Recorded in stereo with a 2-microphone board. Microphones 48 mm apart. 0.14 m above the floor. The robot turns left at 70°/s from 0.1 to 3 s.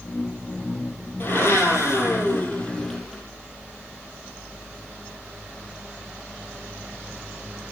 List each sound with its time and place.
1.2 s a blender: 135° left, 3.5 m; by 3.2 s 5° left, 3.5 m